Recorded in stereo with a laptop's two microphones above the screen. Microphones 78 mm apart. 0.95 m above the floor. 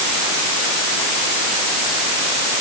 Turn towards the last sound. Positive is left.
No sound to turn to.